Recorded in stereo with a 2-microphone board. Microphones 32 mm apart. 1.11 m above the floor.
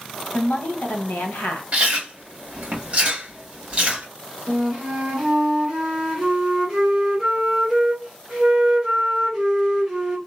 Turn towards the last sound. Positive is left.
turn(degrees=-15)  # may be behind; listen again after turning